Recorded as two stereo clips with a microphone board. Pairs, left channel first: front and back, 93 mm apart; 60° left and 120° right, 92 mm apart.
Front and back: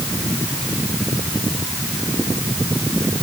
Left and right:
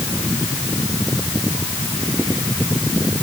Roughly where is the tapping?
No tapping in this recording.